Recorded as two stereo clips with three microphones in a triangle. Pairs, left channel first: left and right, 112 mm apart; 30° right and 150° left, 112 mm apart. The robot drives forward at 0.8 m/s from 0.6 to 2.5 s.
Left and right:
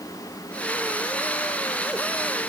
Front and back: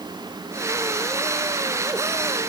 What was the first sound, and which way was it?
Only background noise.